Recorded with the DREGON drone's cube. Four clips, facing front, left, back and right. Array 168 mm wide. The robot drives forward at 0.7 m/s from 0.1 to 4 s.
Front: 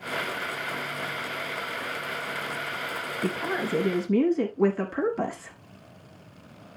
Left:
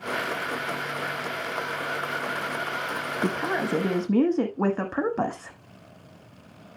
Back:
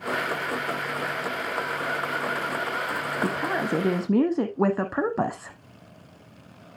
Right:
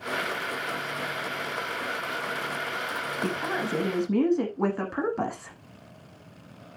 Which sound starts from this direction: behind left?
A woman speaking, at 3.2 s.